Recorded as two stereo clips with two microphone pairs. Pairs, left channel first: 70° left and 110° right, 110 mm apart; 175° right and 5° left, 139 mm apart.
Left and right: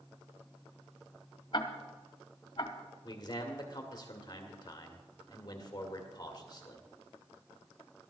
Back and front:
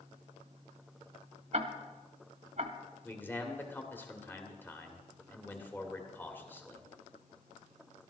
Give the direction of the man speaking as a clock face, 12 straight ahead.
8 o'clock.